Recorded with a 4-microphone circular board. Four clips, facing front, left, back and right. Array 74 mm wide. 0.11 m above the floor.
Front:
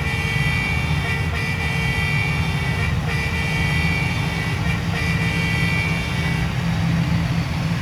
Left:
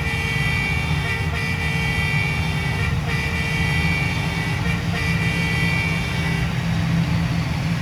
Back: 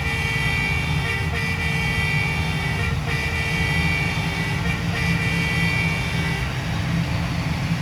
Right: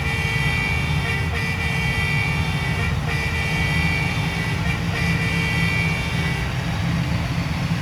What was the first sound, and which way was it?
Only background noise.